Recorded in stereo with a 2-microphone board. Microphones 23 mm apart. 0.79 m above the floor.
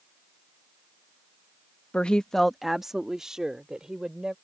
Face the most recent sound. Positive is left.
turn(degrees=-35)  # may be behind; listen again after turning